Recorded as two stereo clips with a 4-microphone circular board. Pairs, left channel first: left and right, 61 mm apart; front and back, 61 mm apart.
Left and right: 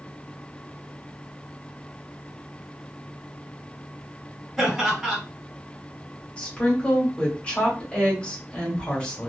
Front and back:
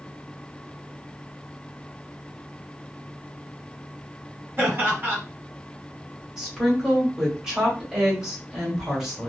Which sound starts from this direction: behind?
Laughter, at 4.6 s.